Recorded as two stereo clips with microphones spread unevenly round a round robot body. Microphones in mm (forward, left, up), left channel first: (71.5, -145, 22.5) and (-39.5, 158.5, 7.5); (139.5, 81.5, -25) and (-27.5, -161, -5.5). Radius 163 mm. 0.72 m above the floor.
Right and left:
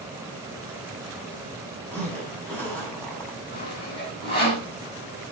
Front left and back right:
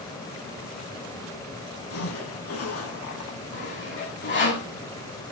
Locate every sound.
1.9 s a zipper: 15° left, 8 m
3.5 s sawing: 5° left, 6 m